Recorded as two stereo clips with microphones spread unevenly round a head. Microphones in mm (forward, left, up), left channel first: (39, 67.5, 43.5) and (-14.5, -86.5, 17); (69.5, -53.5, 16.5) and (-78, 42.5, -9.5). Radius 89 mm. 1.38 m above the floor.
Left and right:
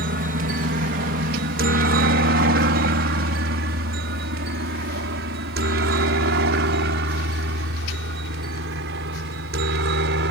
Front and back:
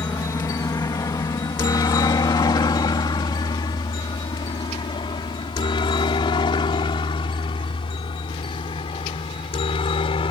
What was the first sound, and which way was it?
A helicopter, 105° right.